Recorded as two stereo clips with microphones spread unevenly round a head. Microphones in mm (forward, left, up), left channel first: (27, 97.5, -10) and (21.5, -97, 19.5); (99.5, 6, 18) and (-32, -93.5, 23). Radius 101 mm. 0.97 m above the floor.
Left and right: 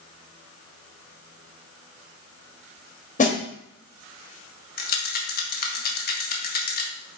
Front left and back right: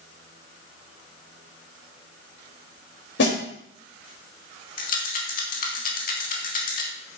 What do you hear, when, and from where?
3.2 s a snare drum: 35° left, 3.5 m
4.8 s a rattle: 65° left, 1.7 m